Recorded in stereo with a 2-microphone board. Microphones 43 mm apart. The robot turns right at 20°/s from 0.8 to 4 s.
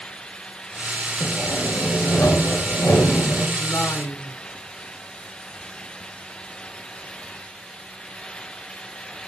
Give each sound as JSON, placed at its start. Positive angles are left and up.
{"t": 1.2, "sound": "sawing", "azimuth_deg": 55, "distance_m": 3.5}
{"t": 3.6, "sound": "a woman speaking", "side_deg": 70, "distance_m": 4.5}